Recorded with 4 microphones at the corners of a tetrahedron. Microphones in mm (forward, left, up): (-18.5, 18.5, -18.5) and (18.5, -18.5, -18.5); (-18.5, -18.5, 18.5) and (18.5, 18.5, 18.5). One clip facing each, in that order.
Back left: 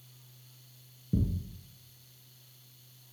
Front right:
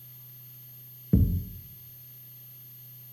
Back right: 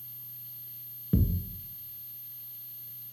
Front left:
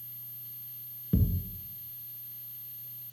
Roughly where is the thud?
Ahead right.